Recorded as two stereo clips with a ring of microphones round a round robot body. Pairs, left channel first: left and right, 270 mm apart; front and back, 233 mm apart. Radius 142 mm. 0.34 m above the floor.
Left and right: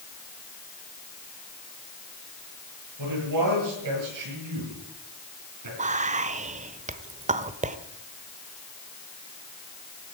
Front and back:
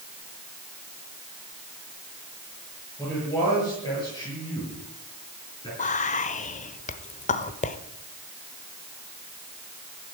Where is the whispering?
40° right, 1.0 m.